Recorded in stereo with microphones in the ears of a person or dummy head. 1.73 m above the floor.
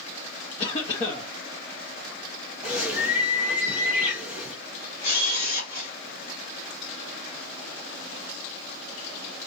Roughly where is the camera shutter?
Left.